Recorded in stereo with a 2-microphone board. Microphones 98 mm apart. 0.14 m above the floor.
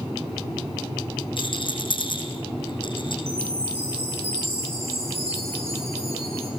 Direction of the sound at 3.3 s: 85° right.